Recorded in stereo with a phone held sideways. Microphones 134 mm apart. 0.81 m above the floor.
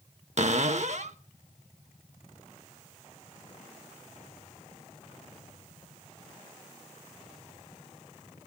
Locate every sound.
0.4 s a cupboard door: 60° right (ahead or behind), 0.8 m